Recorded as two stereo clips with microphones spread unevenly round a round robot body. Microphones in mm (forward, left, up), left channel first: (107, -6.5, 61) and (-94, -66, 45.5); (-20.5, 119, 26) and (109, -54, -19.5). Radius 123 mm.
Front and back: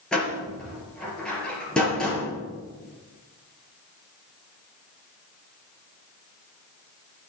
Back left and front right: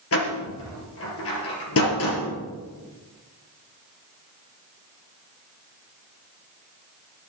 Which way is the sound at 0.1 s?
105° left.